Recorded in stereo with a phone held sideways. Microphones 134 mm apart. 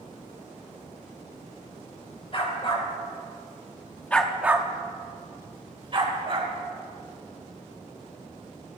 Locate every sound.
2.3 s a dog barking: 45° left (ahead or behind), 3 m; by 6.5 s 45° right (ahead or behind), 3.5 m